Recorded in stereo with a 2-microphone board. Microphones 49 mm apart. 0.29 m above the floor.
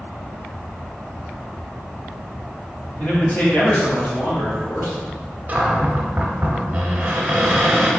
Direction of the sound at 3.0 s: 40° left (ahead or behind).